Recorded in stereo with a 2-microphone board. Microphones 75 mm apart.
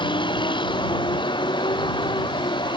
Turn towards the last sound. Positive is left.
turn(degrees=75)  # may be behind; listen again after turning